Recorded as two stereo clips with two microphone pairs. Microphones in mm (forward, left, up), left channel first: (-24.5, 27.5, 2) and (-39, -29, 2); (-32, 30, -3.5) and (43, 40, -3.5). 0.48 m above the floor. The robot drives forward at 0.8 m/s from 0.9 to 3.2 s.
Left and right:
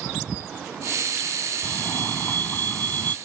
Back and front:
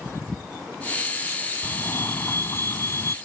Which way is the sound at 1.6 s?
130° left.